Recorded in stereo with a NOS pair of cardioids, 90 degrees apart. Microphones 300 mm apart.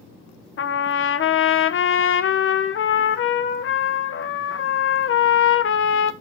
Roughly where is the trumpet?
Ahead left.